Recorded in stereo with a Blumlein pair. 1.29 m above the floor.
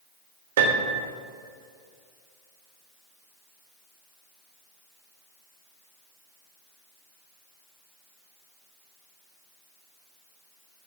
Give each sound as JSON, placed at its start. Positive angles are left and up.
{"t": 0.6, "sound": "a piano", "azimuth_deg": -65, "distance_m": 1.1}